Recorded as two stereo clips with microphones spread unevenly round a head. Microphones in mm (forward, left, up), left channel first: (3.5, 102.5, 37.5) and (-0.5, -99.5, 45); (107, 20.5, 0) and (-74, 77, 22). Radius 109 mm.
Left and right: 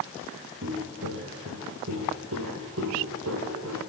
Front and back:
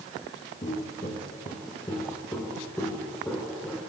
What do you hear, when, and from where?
0.6 s footsteps: 80° right, 2.5 m; by 3.8 s 110° right, 3.5 m